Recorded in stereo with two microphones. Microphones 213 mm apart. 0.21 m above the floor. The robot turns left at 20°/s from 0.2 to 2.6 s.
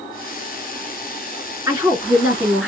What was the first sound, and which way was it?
A woman speaking, 15° right (ahead or behind).